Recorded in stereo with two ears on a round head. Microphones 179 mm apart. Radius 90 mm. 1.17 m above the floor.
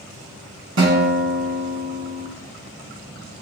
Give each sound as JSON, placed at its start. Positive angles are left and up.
{"t": 0.8, "sound": "a guitar", "side_deg": -65, "distance_m": 2.5}